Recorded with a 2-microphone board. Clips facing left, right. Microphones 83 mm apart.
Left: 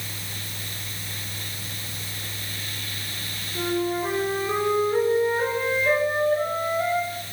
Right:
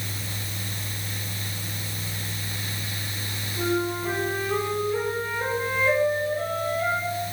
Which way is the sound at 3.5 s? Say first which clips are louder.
Left 1 dB; 75° left (ahead or behind).